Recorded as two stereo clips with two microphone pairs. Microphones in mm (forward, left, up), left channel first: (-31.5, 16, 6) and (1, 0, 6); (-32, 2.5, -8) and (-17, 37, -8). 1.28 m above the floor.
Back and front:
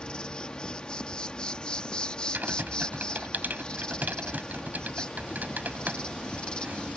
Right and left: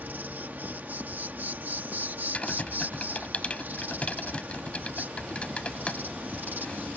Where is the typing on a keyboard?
60° right.